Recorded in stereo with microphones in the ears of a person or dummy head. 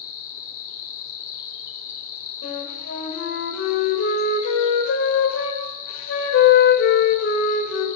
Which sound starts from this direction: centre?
An insect, at 0.0 s.